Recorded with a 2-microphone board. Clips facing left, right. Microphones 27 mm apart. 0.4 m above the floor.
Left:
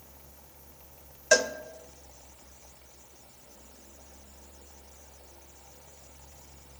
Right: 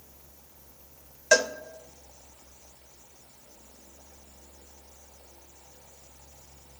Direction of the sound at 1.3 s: 10° right (ahead or behind).